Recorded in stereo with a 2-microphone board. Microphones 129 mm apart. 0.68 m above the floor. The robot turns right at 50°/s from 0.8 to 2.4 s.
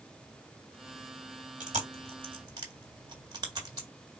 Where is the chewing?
70° right (ahead or behind), 1.8 m; by 3.9 s 30° right (ahead or behind), 1.8 m.